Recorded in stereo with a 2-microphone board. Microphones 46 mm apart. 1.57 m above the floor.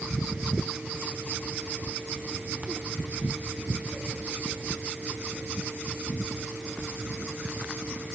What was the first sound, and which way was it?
Only background noise.